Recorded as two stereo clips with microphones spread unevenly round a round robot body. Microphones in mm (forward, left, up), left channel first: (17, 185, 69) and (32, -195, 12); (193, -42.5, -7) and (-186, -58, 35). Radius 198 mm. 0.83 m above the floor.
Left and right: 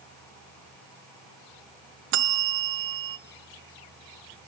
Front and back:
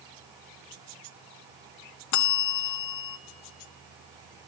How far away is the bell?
About 0.6 m.